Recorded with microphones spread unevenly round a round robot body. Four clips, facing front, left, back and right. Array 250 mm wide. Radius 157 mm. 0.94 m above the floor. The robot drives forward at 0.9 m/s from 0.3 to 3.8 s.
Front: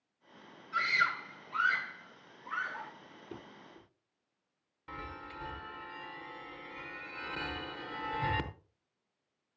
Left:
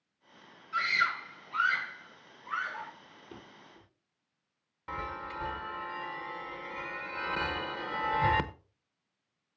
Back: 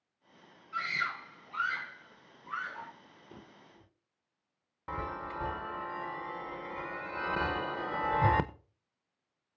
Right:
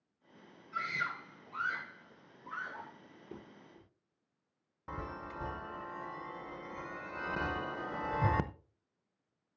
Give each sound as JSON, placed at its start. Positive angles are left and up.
{"t": 0.7, "sound": "a scream", "azimuth_deg": -60, "distance_m": 4.0}
{"t": 3.3, "sound": "a drawer", "azimuth_deg": -60, "distance_m": 8.5}
{"t": 4.9, "sound": "a chime", "azimuth_deg": 180, "distance_m": 0.8}